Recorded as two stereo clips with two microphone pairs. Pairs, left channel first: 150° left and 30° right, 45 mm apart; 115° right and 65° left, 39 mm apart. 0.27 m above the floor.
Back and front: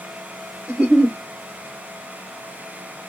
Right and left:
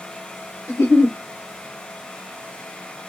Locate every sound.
0.7 s a giggle: 90° right, 2.5 m